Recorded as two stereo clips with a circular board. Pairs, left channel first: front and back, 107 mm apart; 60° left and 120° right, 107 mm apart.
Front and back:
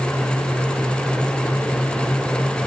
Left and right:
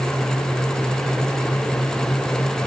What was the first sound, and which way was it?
Only background noise.